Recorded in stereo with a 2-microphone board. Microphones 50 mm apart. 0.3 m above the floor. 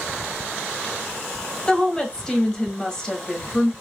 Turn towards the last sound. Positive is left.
turn(degrees=15)  # may be behind; listen again after turning